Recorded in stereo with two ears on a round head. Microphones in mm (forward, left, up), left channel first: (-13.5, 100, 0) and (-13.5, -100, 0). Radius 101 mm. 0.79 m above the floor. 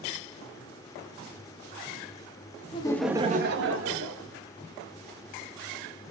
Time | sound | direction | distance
2.7 | laughter | 25° left (ahead or behind) | 0.9 m